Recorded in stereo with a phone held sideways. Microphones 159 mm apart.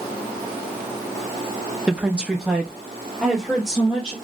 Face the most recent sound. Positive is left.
turn(degrees=0)  # may be behind; listen again after turning